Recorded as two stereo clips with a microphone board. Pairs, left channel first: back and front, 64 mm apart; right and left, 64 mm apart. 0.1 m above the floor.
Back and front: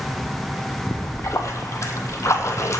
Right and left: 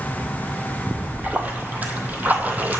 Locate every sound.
0.9 s a splash: 150° left, 0.8 m